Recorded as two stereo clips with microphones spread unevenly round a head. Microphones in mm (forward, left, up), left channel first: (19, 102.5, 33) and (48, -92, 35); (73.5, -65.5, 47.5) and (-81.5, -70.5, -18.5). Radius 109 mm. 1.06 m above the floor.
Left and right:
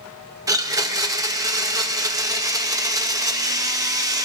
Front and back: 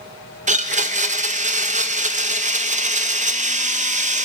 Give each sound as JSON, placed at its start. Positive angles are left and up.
{"t": 0.5, "sound": "a blender", "azimuth_deg": -155, "distance_m": 0.7}